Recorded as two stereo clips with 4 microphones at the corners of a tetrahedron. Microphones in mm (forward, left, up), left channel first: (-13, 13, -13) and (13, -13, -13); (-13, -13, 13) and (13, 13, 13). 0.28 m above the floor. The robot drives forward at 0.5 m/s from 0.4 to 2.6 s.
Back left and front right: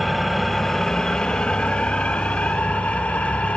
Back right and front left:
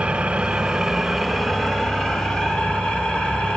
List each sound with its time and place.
0.0 s an engine running: 50° left, 0.8 m; by 3.6 s 165° left, 1.2 m